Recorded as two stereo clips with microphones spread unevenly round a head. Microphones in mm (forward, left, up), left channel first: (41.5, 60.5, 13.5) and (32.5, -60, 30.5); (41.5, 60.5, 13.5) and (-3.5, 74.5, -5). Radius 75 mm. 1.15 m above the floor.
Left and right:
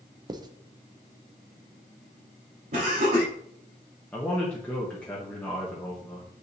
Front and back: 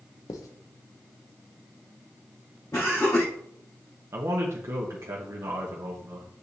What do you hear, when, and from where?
0.3 s writing: 35° right, 0.7 m
2.7 s laughter: 70° right, 3 m
4.1 s a man speaking: 165° left, 1.1 m